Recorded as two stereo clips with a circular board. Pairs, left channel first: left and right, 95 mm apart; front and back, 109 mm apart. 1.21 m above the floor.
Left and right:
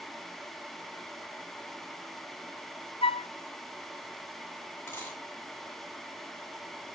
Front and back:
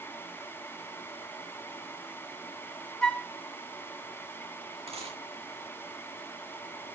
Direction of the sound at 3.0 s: 85° left.